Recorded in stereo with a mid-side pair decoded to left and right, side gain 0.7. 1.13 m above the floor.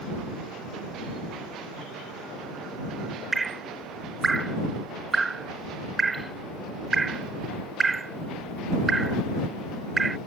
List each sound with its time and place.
3.3 s dripping: 20° right